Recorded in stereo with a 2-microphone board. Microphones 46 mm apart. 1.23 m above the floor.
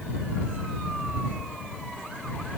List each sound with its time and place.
Only background noise.